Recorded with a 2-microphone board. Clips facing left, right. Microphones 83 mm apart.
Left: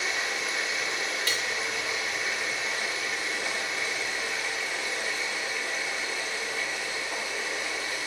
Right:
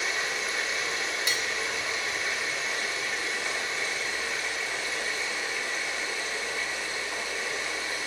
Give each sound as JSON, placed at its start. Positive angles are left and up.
{"t": 0.0, "sound": "running water", "side_deg": 5, "distance_m": 1.4}
{"t": 1.3, "sound": "cutlery clinking", "side_deg": -20, "distance_m": 0.6}